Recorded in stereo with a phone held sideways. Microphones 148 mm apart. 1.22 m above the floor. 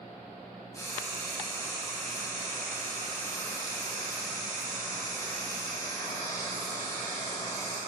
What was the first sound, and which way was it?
Frying, 20° left (ahead or behind).